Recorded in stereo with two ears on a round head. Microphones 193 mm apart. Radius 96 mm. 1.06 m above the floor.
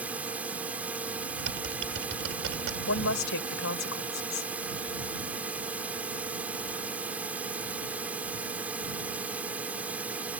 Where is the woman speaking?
70° left (ahead or behind).